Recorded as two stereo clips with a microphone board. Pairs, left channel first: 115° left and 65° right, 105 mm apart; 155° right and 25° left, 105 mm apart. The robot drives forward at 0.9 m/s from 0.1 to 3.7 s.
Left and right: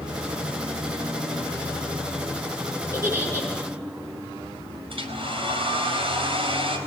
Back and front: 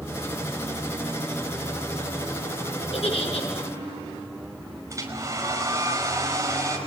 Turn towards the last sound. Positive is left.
turn(degrees=-35)